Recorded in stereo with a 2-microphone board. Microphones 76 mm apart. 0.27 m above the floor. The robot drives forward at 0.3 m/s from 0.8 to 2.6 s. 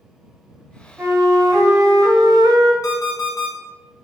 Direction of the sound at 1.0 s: 35° right (ahead or behind).